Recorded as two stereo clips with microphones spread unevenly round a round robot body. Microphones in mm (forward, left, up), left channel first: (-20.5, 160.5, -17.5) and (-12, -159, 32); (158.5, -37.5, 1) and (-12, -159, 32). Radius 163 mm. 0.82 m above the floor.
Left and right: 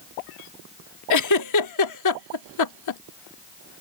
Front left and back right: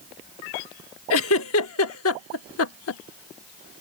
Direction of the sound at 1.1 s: 55° left.